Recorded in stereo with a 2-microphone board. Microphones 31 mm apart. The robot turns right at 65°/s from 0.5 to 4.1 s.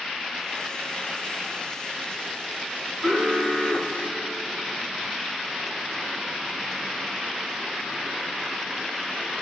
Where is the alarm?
5° right, 9.5 m; by 4.8 s 65° left, 9.5 m.